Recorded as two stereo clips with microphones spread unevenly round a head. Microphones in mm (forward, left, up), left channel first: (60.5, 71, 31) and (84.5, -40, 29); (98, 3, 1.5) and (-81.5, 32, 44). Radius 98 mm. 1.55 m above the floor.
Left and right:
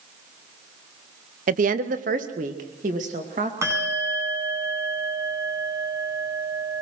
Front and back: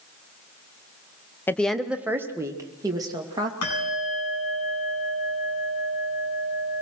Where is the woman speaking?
90° right, 0.8 m; by 3.5 s 120° right, 2.5 m.